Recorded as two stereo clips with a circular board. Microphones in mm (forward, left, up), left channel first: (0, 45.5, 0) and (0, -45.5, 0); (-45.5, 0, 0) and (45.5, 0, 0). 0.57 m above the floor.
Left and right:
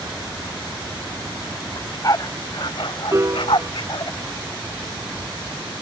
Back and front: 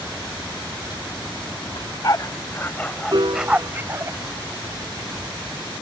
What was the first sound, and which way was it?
A dog barking, 140° left.